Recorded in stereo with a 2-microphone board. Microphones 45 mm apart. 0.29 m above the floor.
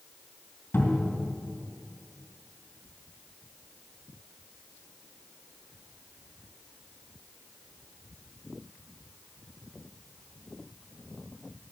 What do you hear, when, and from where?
0.7 s a cupboard door: 60° left (ahead or behind), 3 m